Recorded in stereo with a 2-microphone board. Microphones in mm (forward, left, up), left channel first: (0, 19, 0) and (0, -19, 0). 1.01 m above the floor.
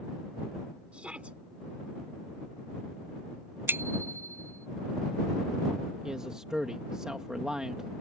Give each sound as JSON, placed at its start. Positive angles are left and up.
{"t": 0.9, "sound": "a shout", "side_deg": -35}
{"t": 3.7, "sound": "a bicycle bell", "side_deg": -75}
{"t": 6.0, "sound": "a man speaking", "side_deg": -20}